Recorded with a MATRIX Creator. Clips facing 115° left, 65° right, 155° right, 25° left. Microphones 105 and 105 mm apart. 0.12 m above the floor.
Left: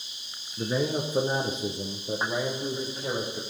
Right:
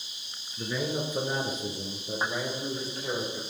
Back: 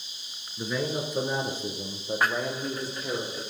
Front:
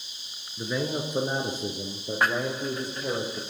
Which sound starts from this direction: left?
A man speaking, at 0.6 s.